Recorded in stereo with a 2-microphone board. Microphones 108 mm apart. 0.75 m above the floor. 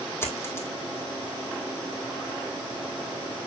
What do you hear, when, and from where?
0.2 s a dropped coin: 25° left (ahead or behind), 2 m